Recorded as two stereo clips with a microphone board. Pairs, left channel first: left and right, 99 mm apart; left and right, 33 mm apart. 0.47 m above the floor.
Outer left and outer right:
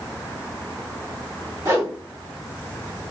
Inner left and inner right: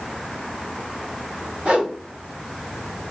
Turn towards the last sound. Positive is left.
turn(degrees=-35)  # may be behind; listen again after turning